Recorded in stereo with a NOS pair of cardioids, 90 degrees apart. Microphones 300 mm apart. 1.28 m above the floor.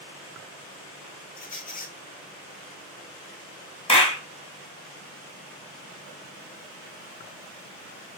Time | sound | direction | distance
1.4 | a squeak | 30° left | 0.5 m
3.9 | a clap | 20° left | 0.7 m